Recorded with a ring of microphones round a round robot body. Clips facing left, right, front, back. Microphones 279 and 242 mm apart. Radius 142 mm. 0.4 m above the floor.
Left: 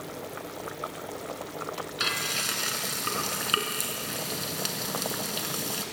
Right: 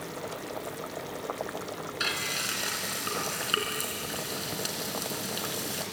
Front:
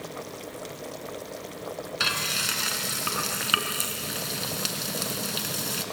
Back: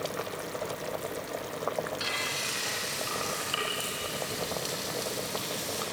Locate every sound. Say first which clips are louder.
2.0 s frying: left 1 dB, front 1 dB; 10° left, 3 m